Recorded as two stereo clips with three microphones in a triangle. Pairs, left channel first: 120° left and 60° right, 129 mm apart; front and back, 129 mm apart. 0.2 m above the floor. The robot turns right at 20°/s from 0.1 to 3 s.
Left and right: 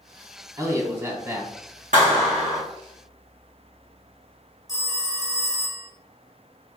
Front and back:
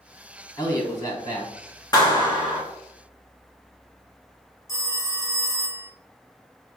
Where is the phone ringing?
45° right, 0.9 m.